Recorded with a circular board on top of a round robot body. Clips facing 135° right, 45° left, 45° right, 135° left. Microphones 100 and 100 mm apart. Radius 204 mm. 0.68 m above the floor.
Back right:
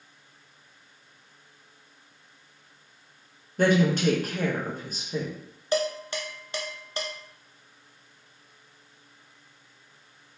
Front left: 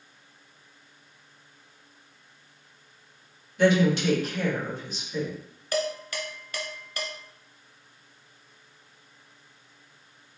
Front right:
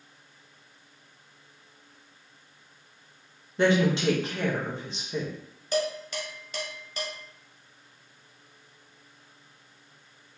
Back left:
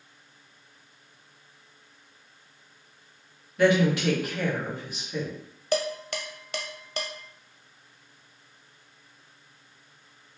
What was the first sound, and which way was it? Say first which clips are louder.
A woman speaking: front left 1 dB, back left 1 dB; 100° right.